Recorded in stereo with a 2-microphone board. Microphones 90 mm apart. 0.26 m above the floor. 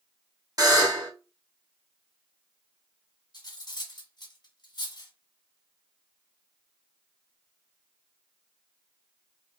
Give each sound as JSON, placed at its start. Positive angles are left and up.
{"t": 0.6, "sound": "a buzzer", "side_deg": -40, "distance_m": 2.0}
{"t": 3.3, "sound": "cutlery clinking", "side_deg": 50, "distance_m": 1.3}